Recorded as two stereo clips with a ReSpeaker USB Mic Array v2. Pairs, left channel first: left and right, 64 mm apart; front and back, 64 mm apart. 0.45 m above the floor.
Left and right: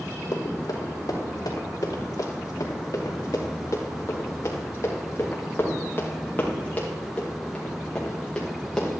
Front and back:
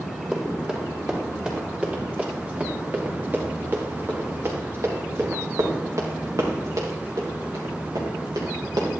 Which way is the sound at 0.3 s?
100° left.